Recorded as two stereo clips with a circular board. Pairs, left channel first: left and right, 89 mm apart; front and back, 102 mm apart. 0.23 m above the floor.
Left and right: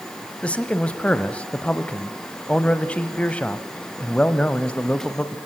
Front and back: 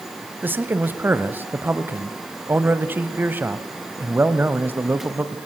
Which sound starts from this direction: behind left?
A man speaking, at 0.4 s.